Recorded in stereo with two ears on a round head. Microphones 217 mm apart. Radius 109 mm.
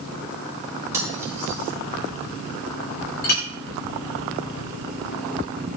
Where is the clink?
40° left (ahead or behind), 4 m.